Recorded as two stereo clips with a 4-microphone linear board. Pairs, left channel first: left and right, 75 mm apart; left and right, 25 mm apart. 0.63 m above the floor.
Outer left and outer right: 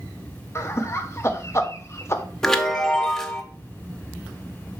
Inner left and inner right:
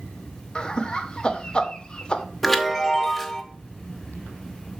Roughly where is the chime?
Centre.